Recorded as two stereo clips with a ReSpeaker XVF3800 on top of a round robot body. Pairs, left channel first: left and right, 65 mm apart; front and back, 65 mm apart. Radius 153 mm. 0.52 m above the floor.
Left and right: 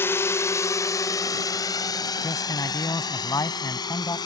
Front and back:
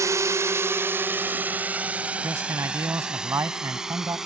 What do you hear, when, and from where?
0.0 s a drone: 145° left; by 4.2 s 95° left
2.2 s a man speaking: 130° left